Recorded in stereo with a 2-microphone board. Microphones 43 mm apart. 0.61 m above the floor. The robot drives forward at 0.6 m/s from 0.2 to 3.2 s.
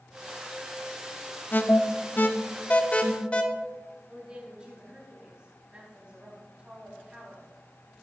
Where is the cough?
No cough in this recording.